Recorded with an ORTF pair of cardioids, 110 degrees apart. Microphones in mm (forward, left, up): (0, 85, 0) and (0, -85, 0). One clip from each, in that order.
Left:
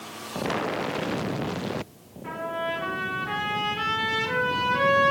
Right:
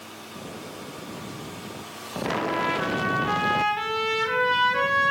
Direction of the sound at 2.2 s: 25° right.